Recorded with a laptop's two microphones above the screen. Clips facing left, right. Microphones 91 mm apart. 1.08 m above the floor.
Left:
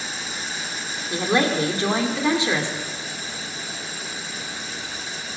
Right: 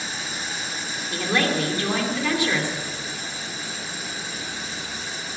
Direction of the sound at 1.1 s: 25° left (ahead or behind).